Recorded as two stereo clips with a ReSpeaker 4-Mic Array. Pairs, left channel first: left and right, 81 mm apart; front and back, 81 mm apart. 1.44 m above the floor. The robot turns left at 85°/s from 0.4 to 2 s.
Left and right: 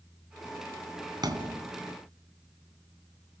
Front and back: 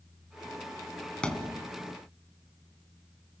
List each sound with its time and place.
1.2 s a thud: 75° right, 2.5 m; by 1.6 s 110° right, 2.5 m